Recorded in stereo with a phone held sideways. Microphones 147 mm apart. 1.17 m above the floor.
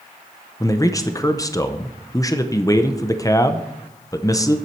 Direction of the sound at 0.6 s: 25° left (ahead or behind).